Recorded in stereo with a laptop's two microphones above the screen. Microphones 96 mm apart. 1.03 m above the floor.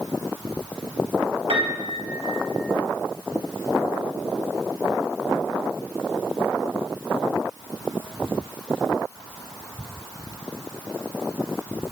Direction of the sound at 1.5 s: 80° right.